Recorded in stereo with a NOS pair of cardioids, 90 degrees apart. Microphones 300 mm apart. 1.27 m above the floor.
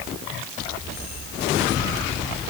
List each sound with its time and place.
Only background noise.